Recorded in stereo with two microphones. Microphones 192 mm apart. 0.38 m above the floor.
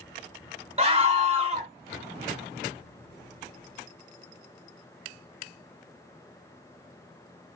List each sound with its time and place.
0.8 s a scream: 30° right (ahead or behind), 1.4 m